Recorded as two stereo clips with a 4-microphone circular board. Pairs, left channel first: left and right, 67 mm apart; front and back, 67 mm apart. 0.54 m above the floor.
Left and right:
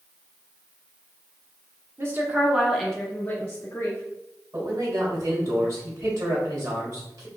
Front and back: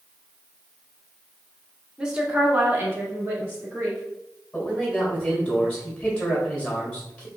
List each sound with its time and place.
2.0 s a woman speaking: 105° right, 1.0 m; by 4.0 s 130° left, 1.5 m
4.5 s a man speaking: 65° right, 2.0 m